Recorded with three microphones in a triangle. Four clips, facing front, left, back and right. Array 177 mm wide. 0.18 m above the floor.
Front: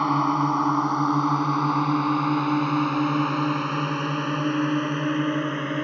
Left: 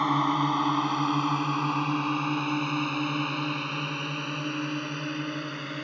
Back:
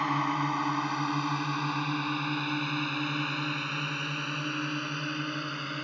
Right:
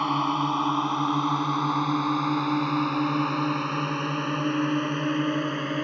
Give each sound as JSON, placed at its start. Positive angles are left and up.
{"t": 0.0, "sound": "a drone", "azimuth_deg": 10}